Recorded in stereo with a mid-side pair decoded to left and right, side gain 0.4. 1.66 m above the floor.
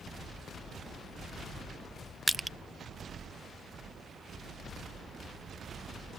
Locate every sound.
2.3 s crushing: 10° right